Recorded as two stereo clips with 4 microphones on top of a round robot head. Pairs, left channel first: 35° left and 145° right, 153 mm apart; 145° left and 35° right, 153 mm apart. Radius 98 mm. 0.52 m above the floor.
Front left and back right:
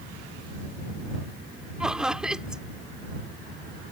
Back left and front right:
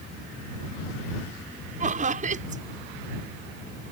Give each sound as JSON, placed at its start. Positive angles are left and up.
{"t": 1.8, "sound": "laughter", "azimuth_deg": -60}